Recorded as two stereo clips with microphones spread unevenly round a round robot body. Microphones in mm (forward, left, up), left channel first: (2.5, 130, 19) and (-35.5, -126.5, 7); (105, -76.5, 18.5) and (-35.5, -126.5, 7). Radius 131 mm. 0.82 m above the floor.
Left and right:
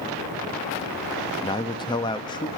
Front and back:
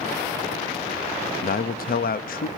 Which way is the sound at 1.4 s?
10° left.